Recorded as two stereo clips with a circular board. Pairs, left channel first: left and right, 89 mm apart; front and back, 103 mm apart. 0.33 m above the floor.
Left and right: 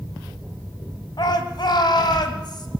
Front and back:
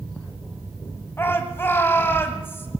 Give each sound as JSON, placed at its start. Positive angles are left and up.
{"t": 1.2, "sound": "a shout", "azimuth_deg": 65, "distance_m": 1.9}